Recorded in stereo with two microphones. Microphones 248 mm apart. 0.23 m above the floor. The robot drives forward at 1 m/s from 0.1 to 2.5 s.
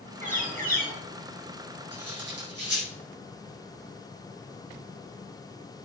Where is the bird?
30° right (ahead or behind), 4.5 m; by 0.9 s 35° right (ahead or behind), 4 m.